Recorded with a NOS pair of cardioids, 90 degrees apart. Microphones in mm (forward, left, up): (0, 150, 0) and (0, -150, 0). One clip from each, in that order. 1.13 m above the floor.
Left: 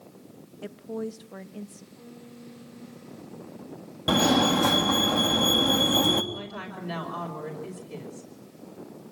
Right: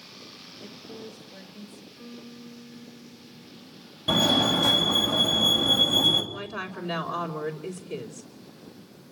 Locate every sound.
0.6 s a woman speaking: 50° left, 1.7 m
2.0 s a piano: 25° right, 4.5 m
4.1 s a fire alarm: 35° left, 3 m
6.3 s a woman speaking: 35° right, 5 m